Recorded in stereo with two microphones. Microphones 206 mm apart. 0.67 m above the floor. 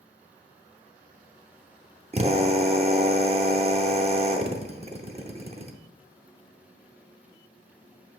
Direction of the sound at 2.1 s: 30° right (ahead or behind).